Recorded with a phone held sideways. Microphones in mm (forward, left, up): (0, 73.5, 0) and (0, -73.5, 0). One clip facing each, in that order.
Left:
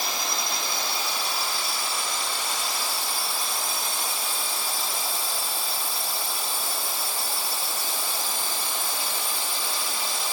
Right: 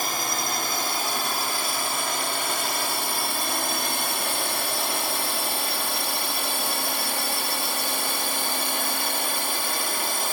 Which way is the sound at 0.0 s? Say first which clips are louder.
Right 2 dB; 50° right (ahead or behind).